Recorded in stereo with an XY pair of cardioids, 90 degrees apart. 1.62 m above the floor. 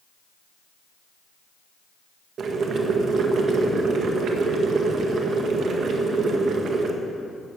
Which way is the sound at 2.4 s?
65° right.